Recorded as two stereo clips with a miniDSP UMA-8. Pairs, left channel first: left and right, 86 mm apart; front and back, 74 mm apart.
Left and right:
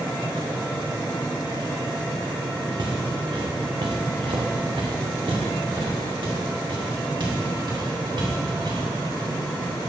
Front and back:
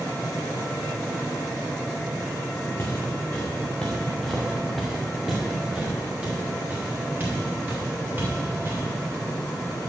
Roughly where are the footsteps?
Ahead right.